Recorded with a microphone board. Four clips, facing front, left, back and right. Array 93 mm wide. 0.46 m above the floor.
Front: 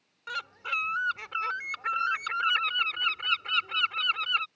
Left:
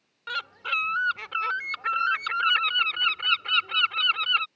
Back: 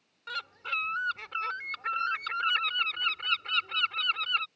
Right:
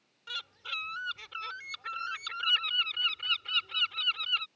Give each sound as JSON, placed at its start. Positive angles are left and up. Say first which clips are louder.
{"t": 0.3, "sound": "a bird", "louder": "left 11 dB, front 2 dB", "azimuth_deg": 80}